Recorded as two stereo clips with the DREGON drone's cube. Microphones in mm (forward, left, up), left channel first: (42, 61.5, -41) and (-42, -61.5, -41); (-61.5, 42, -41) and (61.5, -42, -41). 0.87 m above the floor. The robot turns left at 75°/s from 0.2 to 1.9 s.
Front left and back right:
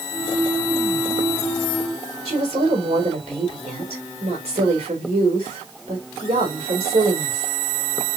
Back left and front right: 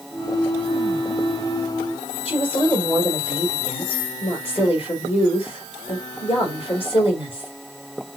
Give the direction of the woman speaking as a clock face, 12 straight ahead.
6 o'clock.